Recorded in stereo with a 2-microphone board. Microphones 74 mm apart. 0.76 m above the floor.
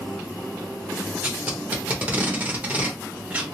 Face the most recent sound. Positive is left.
turn(degrees=-20)  # may be behind; listen again after turning